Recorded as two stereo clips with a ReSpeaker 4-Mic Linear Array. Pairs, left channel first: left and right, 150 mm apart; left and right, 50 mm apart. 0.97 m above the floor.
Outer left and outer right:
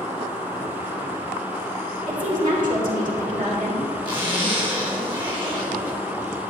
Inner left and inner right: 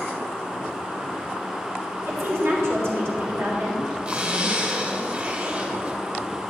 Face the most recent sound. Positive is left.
turn(degrees=-35)  # may be behind; listen again after turning